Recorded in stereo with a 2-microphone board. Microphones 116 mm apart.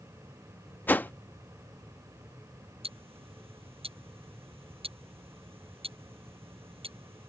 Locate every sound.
0.9 s a whoosh: 15° left (ahead or behind)
2.8 s ticking: 55° right (ahead or behind)